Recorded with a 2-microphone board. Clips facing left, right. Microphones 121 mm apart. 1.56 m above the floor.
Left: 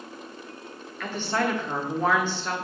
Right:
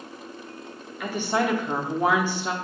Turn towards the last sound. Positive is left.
turn(degrees=-10)  # may be behind; listen again after turning